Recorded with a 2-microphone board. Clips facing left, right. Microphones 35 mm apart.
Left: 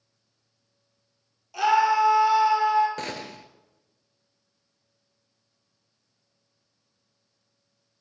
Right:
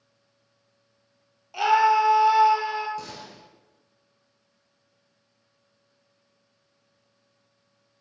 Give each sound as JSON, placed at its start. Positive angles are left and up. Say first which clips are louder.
{"t": 1.5, "sound": "a scream", "louder": "right 1 dB", "side_deg": -15, "distance_m": 3.0}
{"t": 3.0, "sound": "a gunshot", "louder": "left 5 dB", "side_deg": 55, "distance_m": 0.9}